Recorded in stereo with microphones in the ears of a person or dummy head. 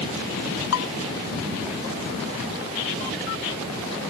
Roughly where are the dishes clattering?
Left.